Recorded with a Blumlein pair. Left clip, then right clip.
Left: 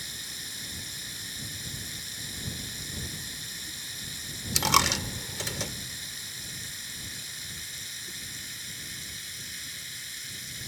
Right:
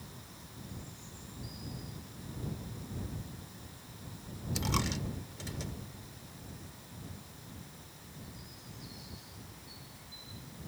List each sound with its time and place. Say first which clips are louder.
0.0 s running water: left 15 dB; 40° left
4.5 s a dropped coin: left 12 dB; 60° left